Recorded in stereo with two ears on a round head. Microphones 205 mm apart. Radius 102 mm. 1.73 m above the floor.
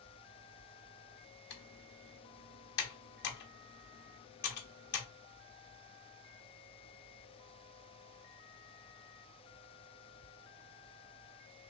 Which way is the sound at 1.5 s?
50° left (ahead or behind).